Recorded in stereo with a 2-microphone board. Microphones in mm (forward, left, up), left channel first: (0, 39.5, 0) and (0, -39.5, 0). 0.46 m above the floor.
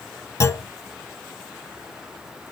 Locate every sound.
0.4 s a clunk: 35° left (ahead or behind), 0.7 m